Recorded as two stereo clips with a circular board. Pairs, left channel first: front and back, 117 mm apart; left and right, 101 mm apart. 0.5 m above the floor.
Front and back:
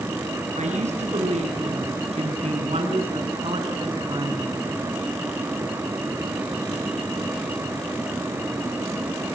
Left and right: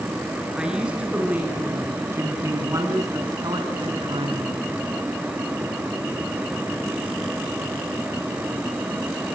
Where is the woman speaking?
170° right, 7.5 m; by 4.6 s 120° right, 6 m.